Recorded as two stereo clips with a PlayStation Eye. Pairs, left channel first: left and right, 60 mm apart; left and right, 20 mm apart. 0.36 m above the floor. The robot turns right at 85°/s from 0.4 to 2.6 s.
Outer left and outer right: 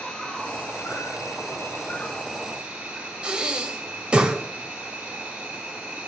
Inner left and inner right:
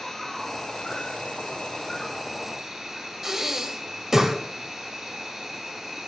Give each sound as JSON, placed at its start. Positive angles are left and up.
{"t": 0.0, "sound": "an insect", "azimuth_deg": 15, "distance_m": 2.5}
{"t": 3.2, "sound": "breathing", "side_deg": -15, "distance_m": 1.4}